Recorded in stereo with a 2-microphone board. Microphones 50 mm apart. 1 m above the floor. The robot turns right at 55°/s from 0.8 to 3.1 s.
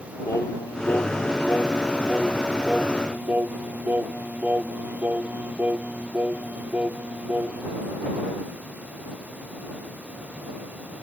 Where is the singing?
95° left; by 7.7 s 140° right.